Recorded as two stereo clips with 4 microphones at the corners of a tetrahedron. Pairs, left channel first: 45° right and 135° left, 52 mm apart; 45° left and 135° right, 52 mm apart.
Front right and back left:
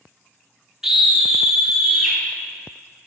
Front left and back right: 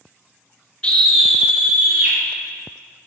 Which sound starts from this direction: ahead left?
A scream, at 0.8 s.